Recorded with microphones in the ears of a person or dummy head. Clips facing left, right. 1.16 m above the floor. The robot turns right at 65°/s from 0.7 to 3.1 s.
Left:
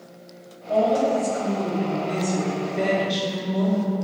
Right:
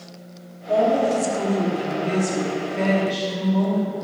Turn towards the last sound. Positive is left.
turn(degrees=30)